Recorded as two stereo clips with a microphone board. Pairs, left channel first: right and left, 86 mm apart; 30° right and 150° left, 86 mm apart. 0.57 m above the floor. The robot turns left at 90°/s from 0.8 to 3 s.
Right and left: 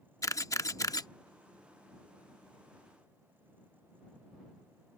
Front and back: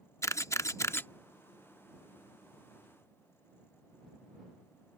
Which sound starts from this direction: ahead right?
A camera shutter, at 0.2 s.